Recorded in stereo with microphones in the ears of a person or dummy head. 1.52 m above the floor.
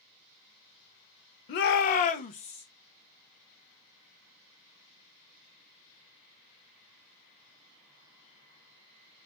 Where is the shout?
35° left (ahead or behind), 0.5 m; by 2.6 s 30° left (ahead or behind), 0.8 m.